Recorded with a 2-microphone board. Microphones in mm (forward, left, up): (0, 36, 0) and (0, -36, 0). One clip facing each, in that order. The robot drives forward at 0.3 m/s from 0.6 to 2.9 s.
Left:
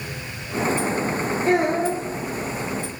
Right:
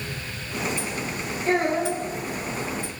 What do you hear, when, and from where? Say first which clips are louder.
1.4 s a child speaking: left 2 dB; 70° left (ahead or behind), 4 m